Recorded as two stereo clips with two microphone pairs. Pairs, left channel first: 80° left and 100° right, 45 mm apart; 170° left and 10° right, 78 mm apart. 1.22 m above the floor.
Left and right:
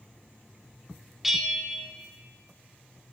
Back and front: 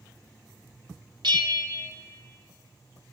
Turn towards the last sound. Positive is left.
turn(degrees=-15)